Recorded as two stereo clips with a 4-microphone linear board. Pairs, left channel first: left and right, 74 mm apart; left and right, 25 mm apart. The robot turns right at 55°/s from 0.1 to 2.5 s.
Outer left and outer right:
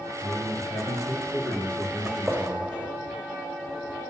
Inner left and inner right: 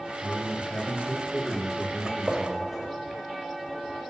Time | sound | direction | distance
0.2 | a man speaking | 85° left | 3 m
2.0 | a gunshot | 15° right (ahead or behind) | 1.4 m